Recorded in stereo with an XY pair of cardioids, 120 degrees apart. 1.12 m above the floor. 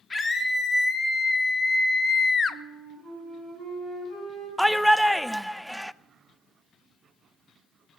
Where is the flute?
5° right, 6 m.